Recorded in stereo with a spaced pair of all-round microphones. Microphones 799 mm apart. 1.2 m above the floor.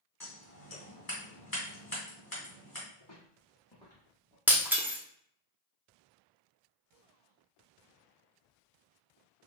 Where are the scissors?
25° left (ahead or behind), 2 m.